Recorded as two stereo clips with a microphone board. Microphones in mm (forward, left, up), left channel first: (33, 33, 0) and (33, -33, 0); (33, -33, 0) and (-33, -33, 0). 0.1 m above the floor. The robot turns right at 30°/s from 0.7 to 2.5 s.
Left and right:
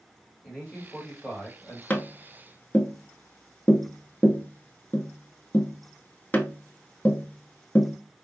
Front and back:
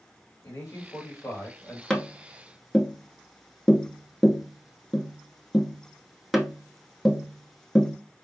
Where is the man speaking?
15° left, 2 m; by 1.8 s 45° left, 2 m.